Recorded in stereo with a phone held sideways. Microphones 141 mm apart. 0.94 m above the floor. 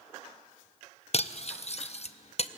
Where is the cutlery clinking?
50° left (ahead or behind), 0.5 m.